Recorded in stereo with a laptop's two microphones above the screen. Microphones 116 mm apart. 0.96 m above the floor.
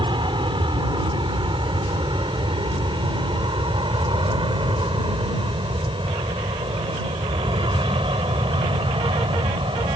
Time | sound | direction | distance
0.0 | an aircraft | 45° right (ahead or behind) | ?